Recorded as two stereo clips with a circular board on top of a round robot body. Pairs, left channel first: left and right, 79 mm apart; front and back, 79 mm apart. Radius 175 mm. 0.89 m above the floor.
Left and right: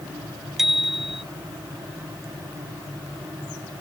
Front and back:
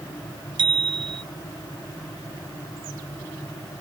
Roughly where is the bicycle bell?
Behind.